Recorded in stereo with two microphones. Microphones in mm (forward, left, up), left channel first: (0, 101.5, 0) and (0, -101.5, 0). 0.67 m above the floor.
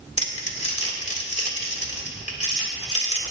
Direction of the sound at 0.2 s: 35° left (ahead or behind).